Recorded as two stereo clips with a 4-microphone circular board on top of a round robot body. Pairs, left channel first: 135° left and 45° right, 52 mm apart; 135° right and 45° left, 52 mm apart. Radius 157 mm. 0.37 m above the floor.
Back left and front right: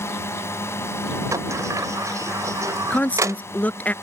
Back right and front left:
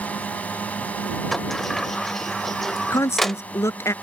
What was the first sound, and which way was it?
A drone, 165° left.